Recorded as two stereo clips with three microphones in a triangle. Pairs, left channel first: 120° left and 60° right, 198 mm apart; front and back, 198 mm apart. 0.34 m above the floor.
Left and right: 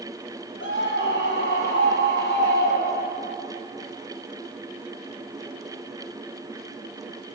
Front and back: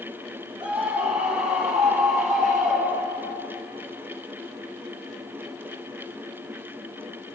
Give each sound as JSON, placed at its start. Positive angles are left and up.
{"t": 0.6, "sound": "a scream", "azimuth_deg": 95, "distance_m": 9.5}